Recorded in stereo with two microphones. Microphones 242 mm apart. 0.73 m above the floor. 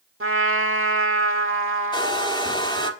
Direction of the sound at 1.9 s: 20° left (ahead or behind).